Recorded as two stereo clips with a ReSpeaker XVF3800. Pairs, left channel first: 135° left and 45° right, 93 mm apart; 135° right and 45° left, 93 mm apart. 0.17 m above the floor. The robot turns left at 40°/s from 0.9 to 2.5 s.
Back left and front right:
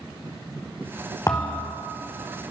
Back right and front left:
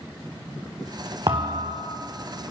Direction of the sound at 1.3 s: 80° left.